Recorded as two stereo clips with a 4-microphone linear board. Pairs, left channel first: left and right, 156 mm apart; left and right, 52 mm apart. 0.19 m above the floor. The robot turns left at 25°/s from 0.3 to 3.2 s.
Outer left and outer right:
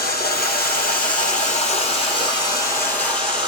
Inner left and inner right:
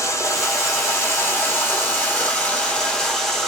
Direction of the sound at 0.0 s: 80° left.